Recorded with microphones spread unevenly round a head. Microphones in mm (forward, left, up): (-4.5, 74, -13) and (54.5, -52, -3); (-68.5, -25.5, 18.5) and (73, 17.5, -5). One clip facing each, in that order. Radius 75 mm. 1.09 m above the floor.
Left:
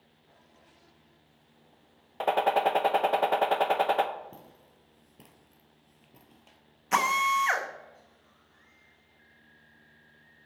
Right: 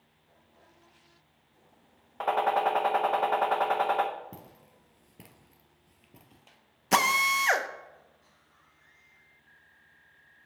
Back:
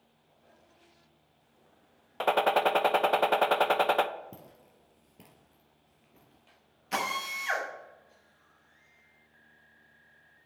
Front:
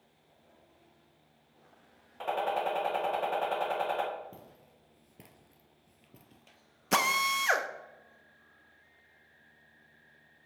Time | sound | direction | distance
2.2 | a gunshot | straight behind | 0.5 m
4.3 | footsteps | 130° right | 1.3 m
6.9 | a drill | 15° right | 0.8 m